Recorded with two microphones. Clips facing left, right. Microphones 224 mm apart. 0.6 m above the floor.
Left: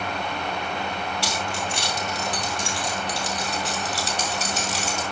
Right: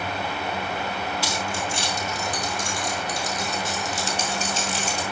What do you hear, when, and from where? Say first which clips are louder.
1.2 s keys jangling: even; 70° left (ahead or behind), 4.5 m